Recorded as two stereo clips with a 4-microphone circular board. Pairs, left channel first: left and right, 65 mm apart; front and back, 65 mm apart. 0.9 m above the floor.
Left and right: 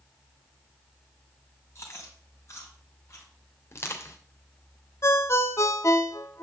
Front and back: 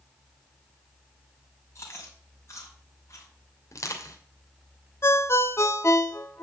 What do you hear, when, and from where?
1.8 s chewing: 45° left, 4.5 m
3.7 s crushing: 40° left, 3 m
5.0 s a ringtone: 45° left, 1.1 m